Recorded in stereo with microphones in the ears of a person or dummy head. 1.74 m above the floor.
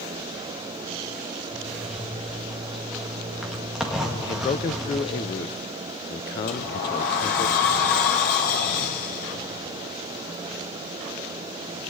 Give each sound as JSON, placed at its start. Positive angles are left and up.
{"t": 1.5, "sound": "a zipper", "side_deg": -5, "distance_m": 3.0}
{"t": 4.2, "sound": "a man speaking", "side_deg": 25, "distance_m": 0.7}
{"t": 6.5, "sound": "a sliding door", "side_deg": 55, "distance_m": 2.5}